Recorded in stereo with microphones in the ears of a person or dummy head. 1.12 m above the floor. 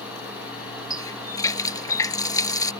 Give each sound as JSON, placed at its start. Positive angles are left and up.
{"t": 0.9, "sound": "a running tap", "side_deg": 20}